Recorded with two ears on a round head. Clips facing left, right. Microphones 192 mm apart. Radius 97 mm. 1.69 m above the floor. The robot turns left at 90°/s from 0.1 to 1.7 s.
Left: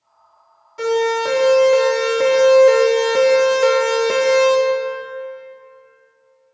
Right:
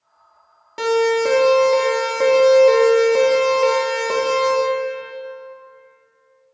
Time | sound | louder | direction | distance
0.8 | a siren | right 1 dB | 80° right | 4 m